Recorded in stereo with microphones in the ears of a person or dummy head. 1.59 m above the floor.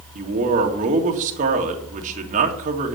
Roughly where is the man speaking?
Right.